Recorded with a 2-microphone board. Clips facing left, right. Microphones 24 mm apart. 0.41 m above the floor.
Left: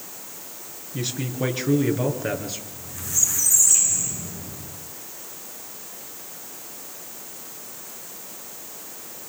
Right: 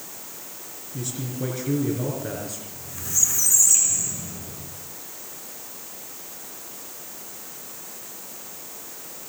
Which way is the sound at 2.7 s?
10° right (ahead or behind).